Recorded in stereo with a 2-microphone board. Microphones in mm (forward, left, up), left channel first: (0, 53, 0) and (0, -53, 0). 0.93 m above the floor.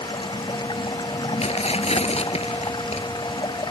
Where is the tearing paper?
85° left.